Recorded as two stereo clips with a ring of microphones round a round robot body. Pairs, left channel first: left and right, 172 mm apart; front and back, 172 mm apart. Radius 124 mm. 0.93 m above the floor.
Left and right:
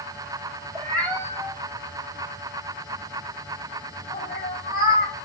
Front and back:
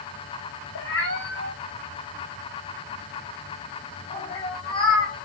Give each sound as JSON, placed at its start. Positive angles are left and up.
{"t": 0.8, "sound": "a cat meowing", "azimuth_deg": 5, "distance_m": 2.5}